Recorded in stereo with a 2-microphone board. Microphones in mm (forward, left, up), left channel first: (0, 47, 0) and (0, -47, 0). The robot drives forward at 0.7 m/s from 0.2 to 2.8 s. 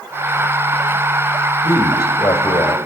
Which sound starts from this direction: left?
A man speaking, at 1.6 s.